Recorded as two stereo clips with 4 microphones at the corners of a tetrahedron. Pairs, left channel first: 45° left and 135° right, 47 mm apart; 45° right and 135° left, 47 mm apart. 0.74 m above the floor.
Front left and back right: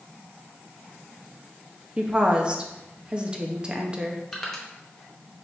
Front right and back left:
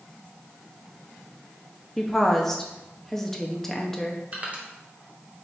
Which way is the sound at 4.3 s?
120° left.